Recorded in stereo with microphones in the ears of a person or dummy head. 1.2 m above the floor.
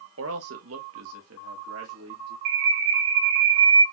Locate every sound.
0.2 s a man speaking: 75° right (ahead or behind), 0.9 m; by 2.4 s 85° right, 2.5 m
2.5 s a bird: 60° right (ahead or behind), 1.6 m